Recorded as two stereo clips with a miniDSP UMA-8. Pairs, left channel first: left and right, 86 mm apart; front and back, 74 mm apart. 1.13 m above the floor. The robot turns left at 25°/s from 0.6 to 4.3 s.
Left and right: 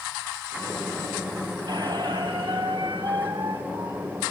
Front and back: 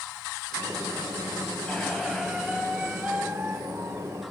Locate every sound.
1.7 s a squeak: 75° right, 1.7 m; by 4.1 s 135° right, 1.7 m